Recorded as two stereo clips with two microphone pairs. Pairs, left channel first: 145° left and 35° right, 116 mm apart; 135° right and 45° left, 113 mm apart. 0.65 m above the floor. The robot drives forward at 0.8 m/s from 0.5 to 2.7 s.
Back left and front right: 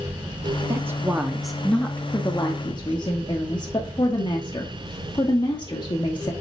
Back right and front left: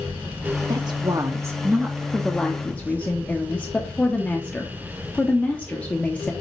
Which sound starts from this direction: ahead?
A woman speaking, at 0.7 s.